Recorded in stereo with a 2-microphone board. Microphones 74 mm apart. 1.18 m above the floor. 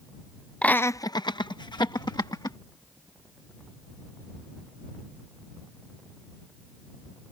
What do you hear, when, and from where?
0.6 s laughter: 15° left (ahead or behind); by 2.6 s 65° left (ahead or behind)